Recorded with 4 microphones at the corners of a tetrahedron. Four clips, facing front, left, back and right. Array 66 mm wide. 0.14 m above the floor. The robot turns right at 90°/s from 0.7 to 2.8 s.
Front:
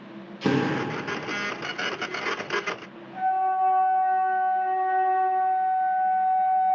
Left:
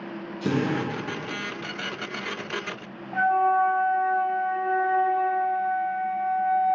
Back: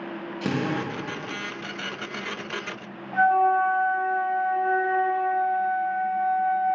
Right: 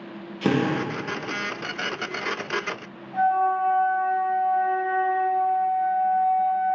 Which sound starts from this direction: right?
A drill, at 0.4 s.